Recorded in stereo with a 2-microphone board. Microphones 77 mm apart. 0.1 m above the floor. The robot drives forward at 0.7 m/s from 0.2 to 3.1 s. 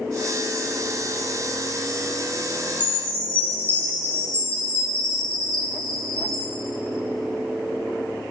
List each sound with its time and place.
2.8 s a chime: 25° left (ahead or behind), 1.8 m